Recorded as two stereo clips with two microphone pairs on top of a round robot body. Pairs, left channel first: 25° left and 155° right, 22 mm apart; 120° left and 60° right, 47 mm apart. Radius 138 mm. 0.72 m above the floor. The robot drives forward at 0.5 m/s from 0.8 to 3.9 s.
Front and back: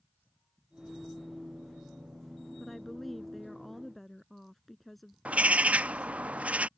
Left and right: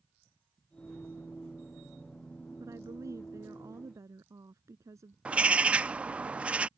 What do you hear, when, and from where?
2.6 s a woman speaking: 55° right; by 5.2 s 60° right
5.2 s a bird: 130° right